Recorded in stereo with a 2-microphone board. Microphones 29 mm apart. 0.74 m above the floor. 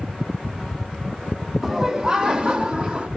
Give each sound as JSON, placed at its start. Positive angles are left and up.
{"t": 1.6, "sound": "laughter", "side_deg": -10, "distance_m": 1.0}